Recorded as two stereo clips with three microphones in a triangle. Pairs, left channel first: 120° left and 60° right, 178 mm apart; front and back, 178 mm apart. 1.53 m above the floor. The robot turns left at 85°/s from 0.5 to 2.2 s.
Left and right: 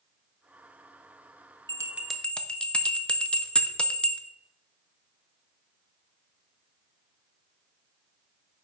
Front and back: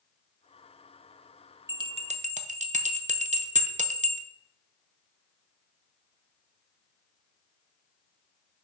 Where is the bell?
115° right, 0.5 m; by 4.2 s 160° right, 0.5 m.